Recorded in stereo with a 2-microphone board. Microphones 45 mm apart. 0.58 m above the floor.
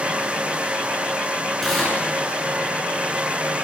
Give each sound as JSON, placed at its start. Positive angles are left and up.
{"t": 1.6, "sound": "tearing paper", "side_deg": 5, "distance_m": 9.0}